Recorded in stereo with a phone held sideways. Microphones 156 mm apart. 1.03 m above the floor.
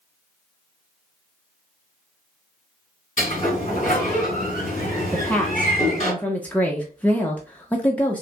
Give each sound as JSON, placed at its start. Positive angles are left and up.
{"t": 3.2, "sound": "a sliding door", "side_deg": 50, "distance_m": 2.5}
{"t": 5.1, "sound": "a woman speaking", "side_deg": 10, "distance_m": 0.7}